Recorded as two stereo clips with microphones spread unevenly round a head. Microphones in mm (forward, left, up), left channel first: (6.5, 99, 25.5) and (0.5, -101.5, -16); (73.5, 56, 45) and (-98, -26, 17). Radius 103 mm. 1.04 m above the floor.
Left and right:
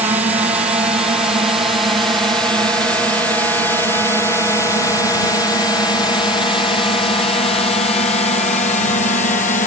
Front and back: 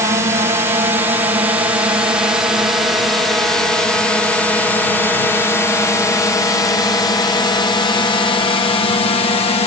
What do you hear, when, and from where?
0.0 s a drone: 130° right; by 9.7 s 60° left